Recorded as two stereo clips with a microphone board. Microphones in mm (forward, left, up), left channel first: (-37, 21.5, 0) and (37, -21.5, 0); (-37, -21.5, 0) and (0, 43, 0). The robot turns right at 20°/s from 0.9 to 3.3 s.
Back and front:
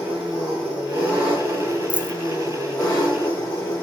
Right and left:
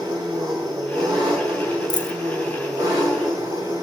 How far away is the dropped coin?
About 0.5 m.